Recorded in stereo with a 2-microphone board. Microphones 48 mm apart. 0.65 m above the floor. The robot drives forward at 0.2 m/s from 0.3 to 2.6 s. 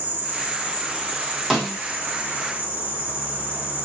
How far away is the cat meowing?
I don't hear a cat meowing.